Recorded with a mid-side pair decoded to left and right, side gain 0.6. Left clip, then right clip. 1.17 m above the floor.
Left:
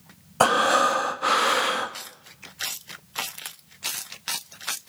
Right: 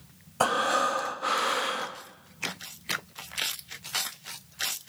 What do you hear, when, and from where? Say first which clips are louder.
0.4 s breathing: left 6 dB; 30° left, 1.0 m